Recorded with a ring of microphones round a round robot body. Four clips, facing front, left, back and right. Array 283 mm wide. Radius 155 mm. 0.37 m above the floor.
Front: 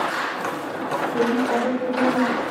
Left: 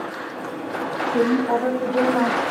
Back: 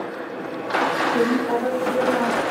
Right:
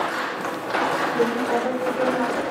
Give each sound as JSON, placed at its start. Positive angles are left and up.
{"t": 1.1, "sound": "a woman speaking", "azimuth_deg": 105, "distance_m": 2.5}